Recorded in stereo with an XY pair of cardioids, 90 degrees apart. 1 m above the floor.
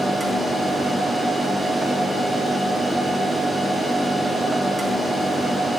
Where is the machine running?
15° right, 2 m.